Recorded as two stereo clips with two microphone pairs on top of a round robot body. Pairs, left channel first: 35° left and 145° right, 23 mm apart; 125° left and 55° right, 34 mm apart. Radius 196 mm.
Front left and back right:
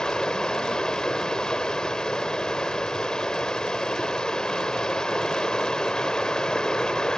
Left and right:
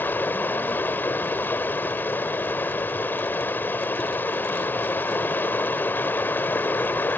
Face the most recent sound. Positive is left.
turn(degrees=100)